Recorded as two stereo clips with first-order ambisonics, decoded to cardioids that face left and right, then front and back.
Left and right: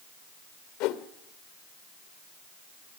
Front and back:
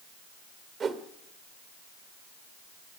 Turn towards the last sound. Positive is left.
turn(degrees=115)